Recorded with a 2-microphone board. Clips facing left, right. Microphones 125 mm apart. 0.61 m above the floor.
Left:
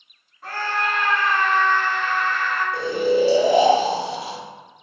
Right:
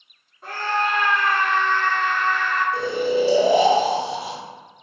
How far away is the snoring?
About 1.4 m.